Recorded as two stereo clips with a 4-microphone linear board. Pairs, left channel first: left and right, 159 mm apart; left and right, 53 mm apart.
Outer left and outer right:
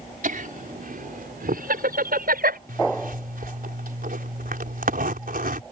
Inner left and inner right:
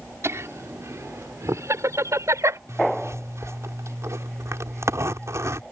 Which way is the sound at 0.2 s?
65° right (ahead or behind).